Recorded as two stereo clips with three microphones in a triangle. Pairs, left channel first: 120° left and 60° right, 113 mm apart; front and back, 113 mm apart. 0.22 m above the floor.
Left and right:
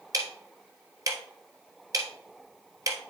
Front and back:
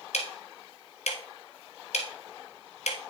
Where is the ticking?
Straight ahead, 1.2 m.